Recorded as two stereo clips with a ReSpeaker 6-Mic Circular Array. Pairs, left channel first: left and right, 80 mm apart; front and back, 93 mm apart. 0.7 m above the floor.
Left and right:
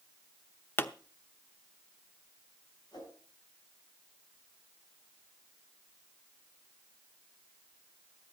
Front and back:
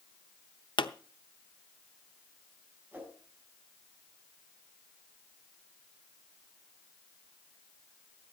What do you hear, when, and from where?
0.8 s a pop: 30° left, 0.8 m
2.9 s a whoosh: 110° left, 6 m